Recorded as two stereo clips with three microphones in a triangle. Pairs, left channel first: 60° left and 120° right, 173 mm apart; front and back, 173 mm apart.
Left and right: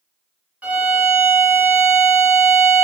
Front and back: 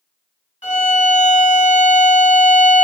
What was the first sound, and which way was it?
A violin, 40° right.